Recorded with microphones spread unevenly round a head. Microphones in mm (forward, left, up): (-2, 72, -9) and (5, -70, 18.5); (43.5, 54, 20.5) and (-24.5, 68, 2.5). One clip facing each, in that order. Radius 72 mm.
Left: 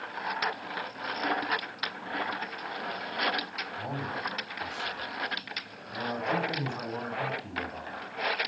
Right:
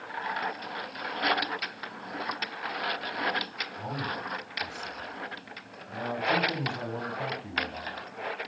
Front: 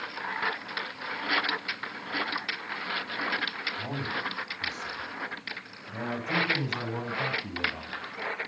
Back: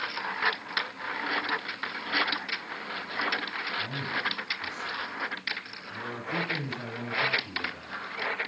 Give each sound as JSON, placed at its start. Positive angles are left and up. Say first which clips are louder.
{"t": 3.8, "sound": "a man speaking", "louder": "even, even", "azimuth_deg": 20, "distance_m": 8.5}